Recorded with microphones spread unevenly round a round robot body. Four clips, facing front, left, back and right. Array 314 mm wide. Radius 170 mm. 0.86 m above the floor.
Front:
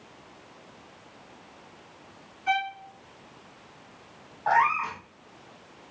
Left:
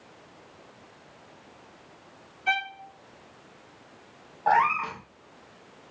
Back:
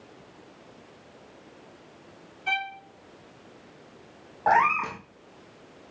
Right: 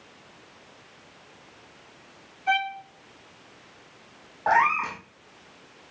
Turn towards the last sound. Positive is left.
turn(degrees=-160)